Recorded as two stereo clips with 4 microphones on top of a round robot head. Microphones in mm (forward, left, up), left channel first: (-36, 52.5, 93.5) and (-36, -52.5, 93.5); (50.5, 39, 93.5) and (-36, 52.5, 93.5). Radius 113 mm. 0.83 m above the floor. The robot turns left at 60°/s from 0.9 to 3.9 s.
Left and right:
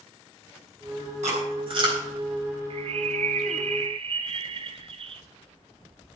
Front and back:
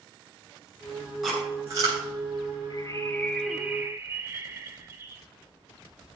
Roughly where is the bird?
Ahead right.